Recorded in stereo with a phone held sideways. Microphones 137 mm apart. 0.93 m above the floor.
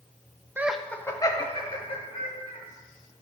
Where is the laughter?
15° right (ahead or behind), 0.5 m; by 2.6 s 50° left (ahead or behind), 1.7 m.